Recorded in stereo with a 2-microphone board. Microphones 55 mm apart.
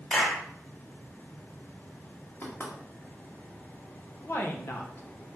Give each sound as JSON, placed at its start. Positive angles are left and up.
{"t": 0.1, "sound": "a clap", "side_deg": 20, "distance_m": 1.2}
{"t": 2.4, "sound": "knocking", "side_deg": 45, "distance_m": 1.8}
{"t": 4.2, "sound": "a woman speaking", "side_deg": 45, "distance_m": 0.8}